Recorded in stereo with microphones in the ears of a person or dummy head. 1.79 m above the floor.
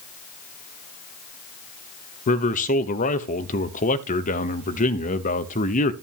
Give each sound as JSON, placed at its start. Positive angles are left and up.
{"t": 2.3, "sound": "a man speaking", "side_deg": 40, "distance_m": 0.9}